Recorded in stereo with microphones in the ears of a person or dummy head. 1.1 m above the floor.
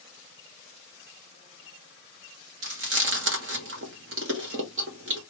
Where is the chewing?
60° right (ahead or behind), 1.0 m.